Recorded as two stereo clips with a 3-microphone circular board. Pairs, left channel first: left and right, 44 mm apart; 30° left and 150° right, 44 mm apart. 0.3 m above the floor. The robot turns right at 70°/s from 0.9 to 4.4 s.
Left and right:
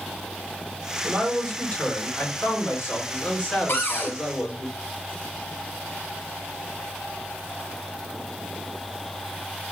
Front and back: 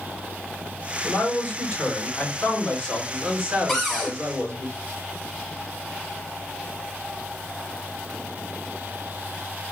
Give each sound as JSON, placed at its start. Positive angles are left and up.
{"t": 1.0, "sound": "a man speaking", "azimuth_deg": -25, "distance_m": 3.5}
{"t": 3.7, "sound": "a cupboard door", "azimuth_deg": 115, "distance_m": 1.9}